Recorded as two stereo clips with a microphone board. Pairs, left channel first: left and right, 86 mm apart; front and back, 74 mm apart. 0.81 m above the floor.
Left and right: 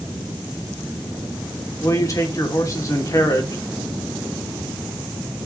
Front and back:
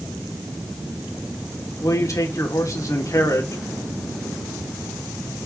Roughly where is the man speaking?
Ahead left.